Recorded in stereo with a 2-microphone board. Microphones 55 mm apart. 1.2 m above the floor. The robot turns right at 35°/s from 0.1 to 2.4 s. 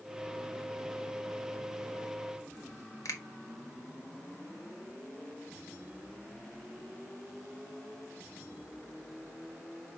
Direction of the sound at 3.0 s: 75° left (ahead or behind).